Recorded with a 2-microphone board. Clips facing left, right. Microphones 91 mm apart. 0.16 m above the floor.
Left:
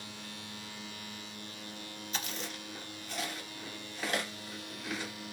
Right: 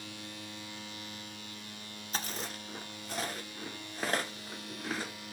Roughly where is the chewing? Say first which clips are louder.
Right 2 dB; right.